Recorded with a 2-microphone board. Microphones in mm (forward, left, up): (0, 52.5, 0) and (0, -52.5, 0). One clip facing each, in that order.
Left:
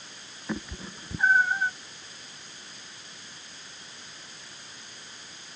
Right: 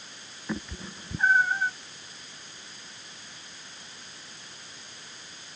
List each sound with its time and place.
0.5 s a cat meowing: 5° left (ahead or behind)